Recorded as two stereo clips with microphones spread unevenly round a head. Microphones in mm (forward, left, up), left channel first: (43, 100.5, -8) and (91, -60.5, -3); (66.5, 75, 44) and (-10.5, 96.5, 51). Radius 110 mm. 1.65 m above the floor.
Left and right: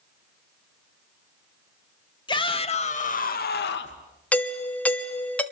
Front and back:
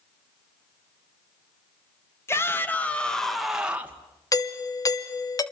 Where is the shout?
45° left, 3 m; by 4.0 s 100° left, 2 m.